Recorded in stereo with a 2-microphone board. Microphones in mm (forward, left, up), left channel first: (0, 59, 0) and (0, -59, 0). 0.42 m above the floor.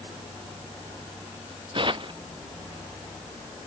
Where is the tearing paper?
45° right (ahead or behind).